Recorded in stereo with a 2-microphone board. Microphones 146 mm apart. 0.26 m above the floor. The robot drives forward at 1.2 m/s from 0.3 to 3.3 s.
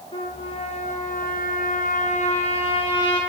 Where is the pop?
No pop in this recording.